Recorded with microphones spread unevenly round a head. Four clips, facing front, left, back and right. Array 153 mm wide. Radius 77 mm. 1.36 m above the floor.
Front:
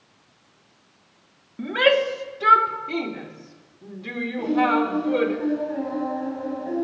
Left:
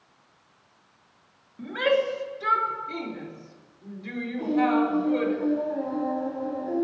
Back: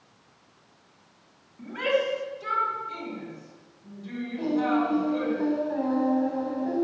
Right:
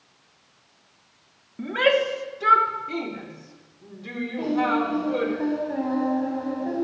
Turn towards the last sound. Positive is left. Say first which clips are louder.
# left 1 dB, front 4 dB
turn(degrees=-85)